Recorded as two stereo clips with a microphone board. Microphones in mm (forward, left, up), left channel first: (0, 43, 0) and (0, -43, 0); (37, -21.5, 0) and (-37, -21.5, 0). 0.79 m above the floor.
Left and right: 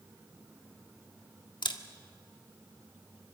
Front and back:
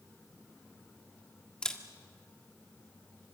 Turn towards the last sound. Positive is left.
turn(degrees=75)